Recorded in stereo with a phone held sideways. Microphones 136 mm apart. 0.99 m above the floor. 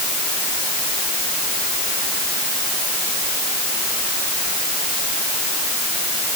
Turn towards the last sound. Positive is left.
No sound to turn to.